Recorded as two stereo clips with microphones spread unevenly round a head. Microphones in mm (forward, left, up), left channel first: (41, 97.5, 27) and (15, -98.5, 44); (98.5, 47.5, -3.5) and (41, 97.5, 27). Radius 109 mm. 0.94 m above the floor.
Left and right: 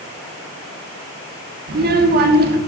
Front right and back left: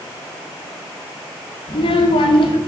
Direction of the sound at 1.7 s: 55° right.